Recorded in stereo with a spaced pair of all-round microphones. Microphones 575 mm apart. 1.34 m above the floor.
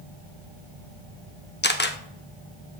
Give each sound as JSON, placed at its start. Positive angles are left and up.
{"t": 1.6, "sound": "a camera shutter", "side_deg": 20, "distance_m": 0.6}